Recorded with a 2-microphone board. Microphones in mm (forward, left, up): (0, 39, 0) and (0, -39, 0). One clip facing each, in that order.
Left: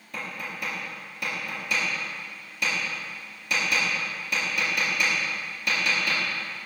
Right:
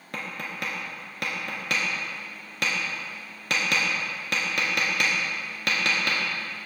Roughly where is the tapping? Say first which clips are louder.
Right 1 dB; right.